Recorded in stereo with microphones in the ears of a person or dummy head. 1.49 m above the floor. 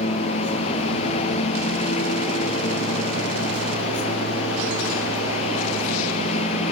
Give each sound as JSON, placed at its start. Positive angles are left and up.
{"t": 0.0, "sound": "a lawn mower", "side_deg": 35}